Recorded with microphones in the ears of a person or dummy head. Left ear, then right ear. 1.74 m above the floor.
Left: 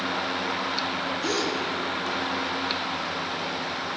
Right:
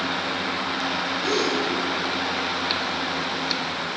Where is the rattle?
No rattle in this recording.